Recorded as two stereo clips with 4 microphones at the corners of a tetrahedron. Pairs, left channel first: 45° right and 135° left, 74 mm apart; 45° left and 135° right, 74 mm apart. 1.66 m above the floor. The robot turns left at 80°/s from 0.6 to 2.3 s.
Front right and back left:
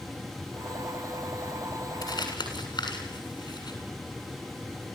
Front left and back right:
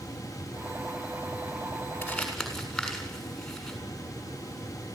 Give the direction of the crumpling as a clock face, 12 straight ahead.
1 o'clock.